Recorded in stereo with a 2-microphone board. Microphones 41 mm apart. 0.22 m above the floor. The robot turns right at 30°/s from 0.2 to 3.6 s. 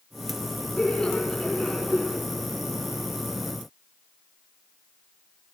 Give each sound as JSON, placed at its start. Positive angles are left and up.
{"t": 0.8, "sound": "laughter", "azimuth_deg": 145, "distance_m": 2.5}